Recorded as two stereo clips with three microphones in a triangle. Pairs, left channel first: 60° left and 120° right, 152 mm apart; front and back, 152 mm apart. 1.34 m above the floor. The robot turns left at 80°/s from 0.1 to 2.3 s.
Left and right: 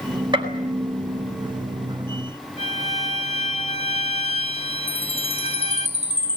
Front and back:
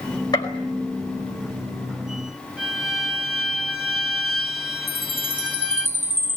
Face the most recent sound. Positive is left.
turn(degrees=105)